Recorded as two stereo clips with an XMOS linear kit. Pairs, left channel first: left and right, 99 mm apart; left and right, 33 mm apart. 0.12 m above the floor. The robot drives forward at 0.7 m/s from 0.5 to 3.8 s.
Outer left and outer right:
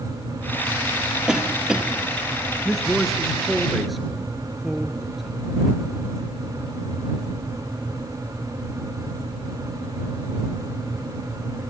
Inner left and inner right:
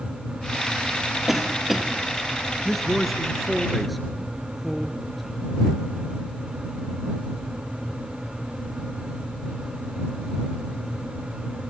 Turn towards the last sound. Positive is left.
turn(degrees=0)  # may be behind; listen again after turning